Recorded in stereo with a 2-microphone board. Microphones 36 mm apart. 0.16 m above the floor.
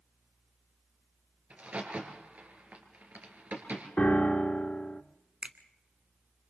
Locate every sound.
1.5 s a crack: 40° right (ahead or behind), 3 m
4.0 s a piano: 35° left (ahead or behind), 1.2 m
5.4 s a finger snap: 35° right (ahead or behind), 1.0 m